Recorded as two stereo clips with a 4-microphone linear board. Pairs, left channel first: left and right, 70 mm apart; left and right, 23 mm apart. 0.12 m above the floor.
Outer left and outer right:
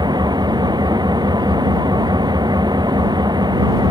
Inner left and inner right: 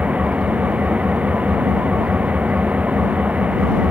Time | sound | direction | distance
0.0 | an engine running | 80° right | ?